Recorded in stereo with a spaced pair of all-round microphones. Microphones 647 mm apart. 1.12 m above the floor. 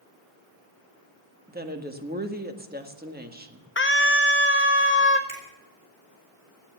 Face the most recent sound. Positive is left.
turn(degrees=85)